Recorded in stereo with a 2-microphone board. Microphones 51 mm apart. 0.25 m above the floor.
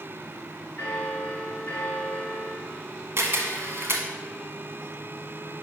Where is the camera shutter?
55° right (ahead or behind), 1.2 m.